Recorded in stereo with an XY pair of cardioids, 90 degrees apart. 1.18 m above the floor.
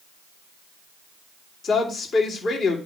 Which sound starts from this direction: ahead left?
A woman speaking, at 1.6 s.